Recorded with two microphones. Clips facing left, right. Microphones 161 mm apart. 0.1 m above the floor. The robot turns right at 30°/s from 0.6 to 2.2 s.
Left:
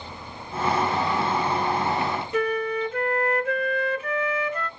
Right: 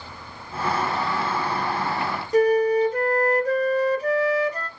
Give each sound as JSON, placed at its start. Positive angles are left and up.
{"t": 2.3, "sound": "a flute", "side_deg": -40, "distance_m": 0.7}